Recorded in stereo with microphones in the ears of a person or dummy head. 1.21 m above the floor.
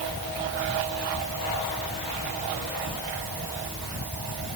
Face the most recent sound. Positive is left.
No sound to turn to.